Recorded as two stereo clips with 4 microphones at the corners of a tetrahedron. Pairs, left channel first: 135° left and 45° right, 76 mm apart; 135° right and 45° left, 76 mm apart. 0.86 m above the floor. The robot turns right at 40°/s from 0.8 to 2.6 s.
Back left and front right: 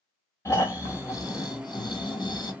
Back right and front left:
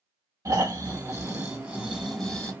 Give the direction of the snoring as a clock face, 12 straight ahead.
9 o'clock.